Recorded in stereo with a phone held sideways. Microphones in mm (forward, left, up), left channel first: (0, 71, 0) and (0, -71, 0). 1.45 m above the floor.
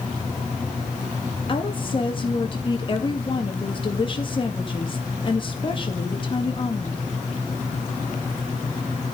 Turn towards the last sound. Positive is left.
turn(degrees=35)  # may be behind; listen again after turning